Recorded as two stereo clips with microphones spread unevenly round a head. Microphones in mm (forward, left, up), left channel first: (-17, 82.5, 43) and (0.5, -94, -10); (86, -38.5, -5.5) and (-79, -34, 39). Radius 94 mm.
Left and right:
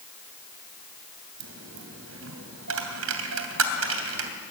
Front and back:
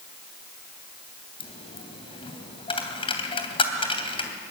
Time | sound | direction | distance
1.4 | a dropped coin | 65° right | 2.5 m